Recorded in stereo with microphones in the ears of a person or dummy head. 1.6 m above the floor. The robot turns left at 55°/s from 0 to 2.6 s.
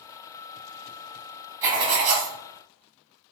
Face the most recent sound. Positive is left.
turn(degrees=-70)